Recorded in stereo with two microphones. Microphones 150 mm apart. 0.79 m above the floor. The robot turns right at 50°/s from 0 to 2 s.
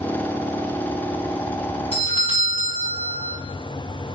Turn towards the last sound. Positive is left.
turn(degrees=35)  # may be behind; listen again after turning